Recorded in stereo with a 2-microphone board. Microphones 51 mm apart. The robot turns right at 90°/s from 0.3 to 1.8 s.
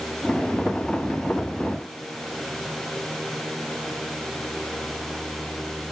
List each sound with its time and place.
Only background noise.